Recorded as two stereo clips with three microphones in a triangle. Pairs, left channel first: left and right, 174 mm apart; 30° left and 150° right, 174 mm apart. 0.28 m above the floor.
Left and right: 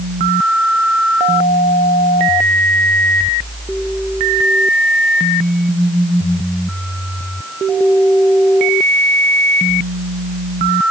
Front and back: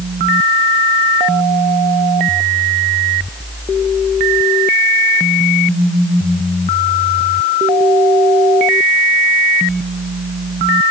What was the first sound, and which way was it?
Only background noise.